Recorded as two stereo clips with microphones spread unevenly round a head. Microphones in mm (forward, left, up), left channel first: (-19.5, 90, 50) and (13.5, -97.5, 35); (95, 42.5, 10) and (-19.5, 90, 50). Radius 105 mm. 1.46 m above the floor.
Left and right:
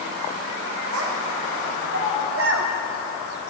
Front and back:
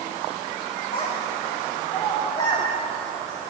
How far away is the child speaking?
About 1.9 m.